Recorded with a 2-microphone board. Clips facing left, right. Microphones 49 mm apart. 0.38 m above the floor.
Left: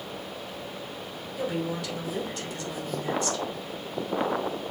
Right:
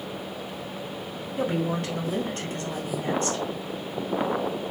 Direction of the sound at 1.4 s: 40° right (ahead or behind).